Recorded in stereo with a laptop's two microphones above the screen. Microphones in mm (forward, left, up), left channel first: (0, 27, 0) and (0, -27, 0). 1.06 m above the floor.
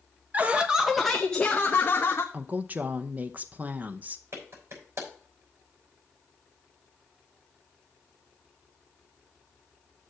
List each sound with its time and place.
0.3 s laughter: 30° right (ahead or behind), 0.9 m; by 2.2 s 40° left (ahead or behind), 1.3 m
2.3 s a woman speaking: 30° right (ahead or behind), 0.7 m
4.3 s a clap: 60° right (ahead or behind), 5.5 m